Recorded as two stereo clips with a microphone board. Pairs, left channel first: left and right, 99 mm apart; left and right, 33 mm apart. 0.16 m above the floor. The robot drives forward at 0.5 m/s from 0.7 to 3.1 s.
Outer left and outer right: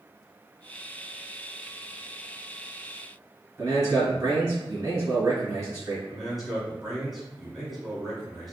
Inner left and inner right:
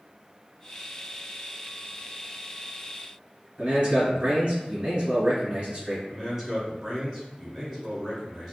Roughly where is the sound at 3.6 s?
Right.